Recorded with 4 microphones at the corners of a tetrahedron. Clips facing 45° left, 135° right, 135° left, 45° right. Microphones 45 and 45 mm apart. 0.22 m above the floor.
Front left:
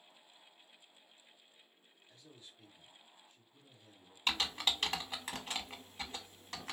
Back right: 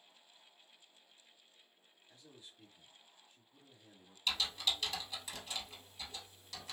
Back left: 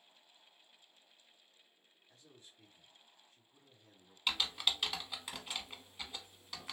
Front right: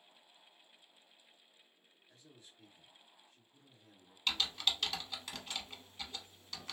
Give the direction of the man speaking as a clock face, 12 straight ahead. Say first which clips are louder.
Even, front right 1 dB; 7 o'clock.